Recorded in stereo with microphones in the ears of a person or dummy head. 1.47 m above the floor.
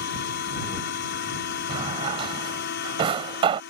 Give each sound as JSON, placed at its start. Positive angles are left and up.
{"t": 0.0, "sound": "a machine running", "side_deg": 55}
{"t": 1.7, "sound": "a drawer", "side_deg": -35}